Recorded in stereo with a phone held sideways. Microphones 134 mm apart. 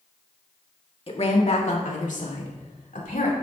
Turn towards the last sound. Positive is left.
turn(degrees=75)  # may be behind; listen again after turning